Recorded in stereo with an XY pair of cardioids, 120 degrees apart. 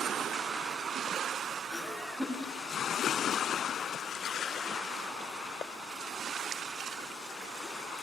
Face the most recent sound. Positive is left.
turn(degrees=0)